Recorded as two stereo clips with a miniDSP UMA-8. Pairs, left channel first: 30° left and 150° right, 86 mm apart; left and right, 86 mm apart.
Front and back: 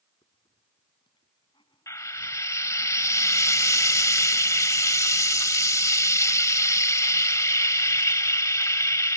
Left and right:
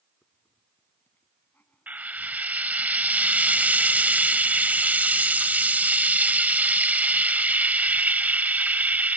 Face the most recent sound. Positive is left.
turn(degrees=-20)